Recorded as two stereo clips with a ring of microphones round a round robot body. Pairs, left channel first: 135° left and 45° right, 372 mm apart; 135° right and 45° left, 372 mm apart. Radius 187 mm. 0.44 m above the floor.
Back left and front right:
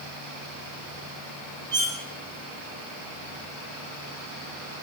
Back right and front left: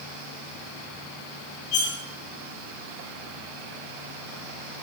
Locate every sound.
1.7 s cutlery clinking: 125° right, 6.5 m